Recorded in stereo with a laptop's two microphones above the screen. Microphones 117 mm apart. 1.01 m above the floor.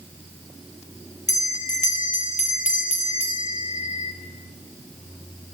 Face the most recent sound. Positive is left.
turn(degrees=80)